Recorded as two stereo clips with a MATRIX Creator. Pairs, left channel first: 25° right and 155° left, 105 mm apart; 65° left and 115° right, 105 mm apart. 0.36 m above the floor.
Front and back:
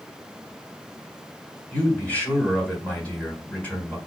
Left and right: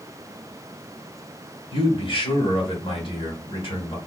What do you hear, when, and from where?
1.7 s a man speaking: 50° left, 2 m